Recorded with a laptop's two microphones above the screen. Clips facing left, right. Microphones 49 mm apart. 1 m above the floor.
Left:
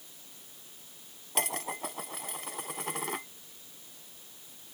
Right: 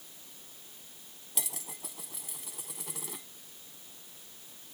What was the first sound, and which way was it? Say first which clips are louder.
Dishes clattering: left 11 dB; 55° left (ahead or behind).